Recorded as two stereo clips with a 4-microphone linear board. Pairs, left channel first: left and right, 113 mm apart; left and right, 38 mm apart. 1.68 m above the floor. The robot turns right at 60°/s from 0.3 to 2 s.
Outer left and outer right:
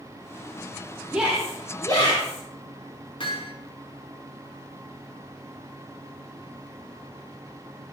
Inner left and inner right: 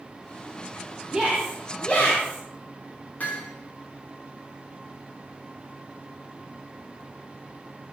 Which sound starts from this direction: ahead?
A shout, at 1.1 s.